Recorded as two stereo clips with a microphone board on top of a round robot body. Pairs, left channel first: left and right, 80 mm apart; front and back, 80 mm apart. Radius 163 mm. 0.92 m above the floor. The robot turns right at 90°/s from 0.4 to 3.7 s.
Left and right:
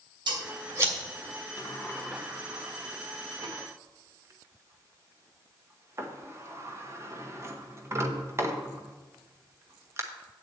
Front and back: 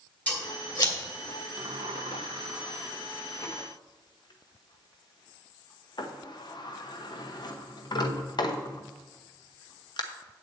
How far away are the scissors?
About 2.5 m.